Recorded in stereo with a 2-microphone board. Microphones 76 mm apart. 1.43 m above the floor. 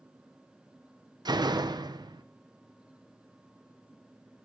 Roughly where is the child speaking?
I don't hear a child speaking.